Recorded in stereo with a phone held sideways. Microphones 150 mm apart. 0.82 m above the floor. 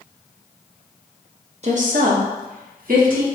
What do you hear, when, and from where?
1.6 s a woman speaking: 50° right (ahead or behind), 0.8 m; by 3.3 s 65° right (ahead or behind), 1.7 m